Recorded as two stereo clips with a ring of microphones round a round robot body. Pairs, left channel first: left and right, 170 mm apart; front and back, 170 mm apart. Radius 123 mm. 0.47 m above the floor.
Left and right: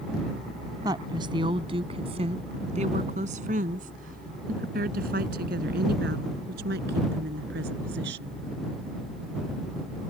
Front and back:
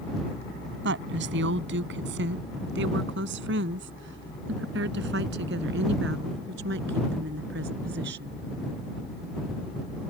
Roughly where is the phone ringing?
I don't hear a phone ringing.